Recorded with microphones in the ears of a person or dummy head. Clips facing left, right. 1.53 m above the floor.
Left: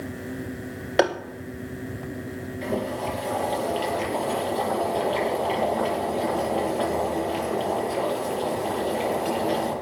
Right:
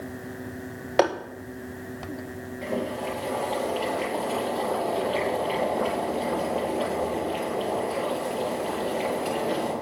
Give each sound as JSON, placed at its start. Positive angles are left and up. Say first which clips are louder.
{"t": 1.0, "sound": "tapping", "louder": "even", "side_deg": 5, "distance_m": 1.2}
{"t": 2.6, "sound": "boiling", "louder": "left 1 dB", "side_deg": 15, "distance_m": 8.5}